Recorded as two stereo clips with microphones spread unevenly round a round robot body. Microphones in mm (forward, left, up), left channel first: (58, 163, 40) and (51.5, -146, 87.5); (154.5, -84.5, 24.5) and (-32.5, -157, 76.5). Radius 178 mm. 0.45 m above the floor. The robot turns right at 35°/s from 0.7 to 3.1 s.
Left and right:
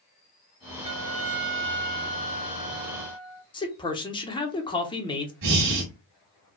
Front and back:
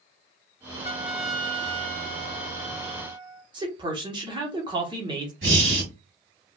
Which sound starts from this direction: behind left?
A man speaking, at 3.5 s.